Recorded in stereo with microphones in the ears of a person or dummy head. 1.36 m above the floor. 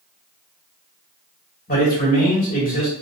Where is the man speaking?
40° left (ahead or behind), 1.6 m.